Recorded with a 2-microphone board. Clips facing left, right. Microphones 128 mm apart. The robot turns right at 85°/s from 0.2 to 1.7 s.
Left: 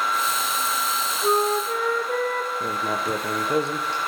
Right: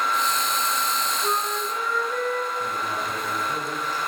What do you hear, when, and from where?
1.2 s a flute: 25° left, 3.5 m; by 2.5 s 70° left, 3.5 m
2.6 s writing: 75° left (ahead or behind), 4 m